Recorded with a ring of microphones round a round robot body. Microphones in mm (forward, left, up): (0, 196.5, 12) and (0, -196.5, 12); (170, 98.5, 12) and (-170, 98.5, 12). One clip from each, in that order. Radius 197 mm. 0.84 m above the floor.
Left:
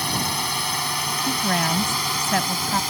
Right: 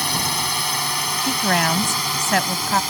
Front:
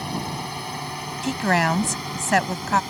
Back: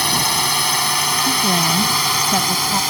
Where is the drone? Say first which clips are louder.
Right 2 dB, back 12 dB; 170° right; by 2.9 s straight behind.